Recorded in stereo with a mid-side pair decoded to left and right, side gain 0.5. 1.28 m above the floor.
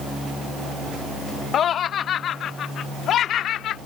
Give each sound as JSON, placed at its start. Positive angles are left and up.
{"t": 1.5, "sound": "laughter", "azimuth_deg": 55}